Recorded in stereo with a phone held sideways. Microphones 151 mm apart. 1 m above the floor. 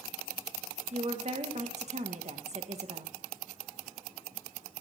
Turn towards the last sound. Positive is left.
turn(degrees=-45)  # may be behind; listen again after turning